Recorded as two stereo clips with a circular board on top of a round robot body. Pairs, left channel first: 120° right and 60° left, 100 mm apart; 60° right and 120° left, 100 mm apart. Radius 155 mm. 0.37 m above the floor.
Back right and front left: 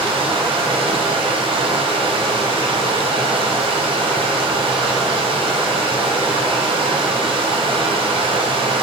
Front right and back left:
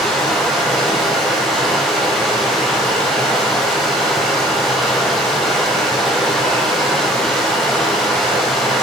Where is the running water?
30° left, 1.7 m.